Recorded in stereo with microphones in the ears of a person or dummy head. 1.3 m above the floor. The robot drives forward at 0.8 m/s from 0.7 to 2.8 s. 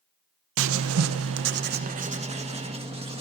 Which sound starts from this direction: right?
Writing, at 0.6 s.